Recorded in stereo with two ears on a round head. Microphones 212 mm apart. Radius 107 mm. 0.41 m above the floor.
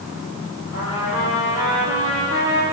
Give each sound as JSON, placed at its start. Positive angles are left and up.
{"t": 0.7, "sound": "a trumpet", "side_deg": 65, "distance_m": 9.5}